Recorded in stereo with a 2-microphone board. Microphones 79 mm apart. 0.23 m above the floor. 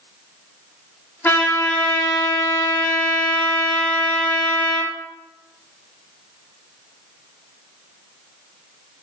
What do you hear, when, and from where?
1.2 s a trumpet: 25° left (ahead or behind), 2 m